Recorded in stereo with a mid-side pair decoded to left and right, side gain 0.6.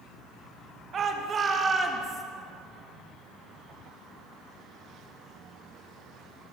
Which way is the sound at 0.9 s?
40° right.